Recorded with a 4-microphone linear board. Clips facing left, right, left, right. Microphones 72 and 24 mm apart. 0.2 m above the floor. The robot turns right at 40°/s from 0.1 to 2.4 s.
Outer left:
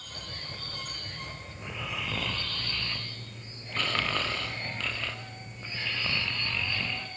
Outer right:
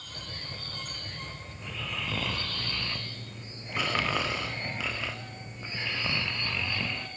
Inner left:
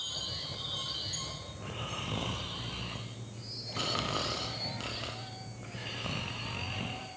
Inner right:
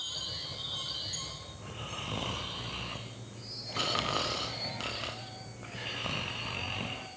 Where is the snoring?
155° left, 3 m; by 7.1 s 170° right, 3 m.